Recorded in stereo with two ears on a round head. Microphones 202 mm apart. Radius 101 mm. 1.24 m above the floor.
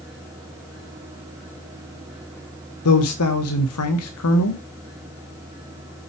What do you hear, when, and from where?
2.9 s a man speaking: 75° left (ahead or behind), 1.2 m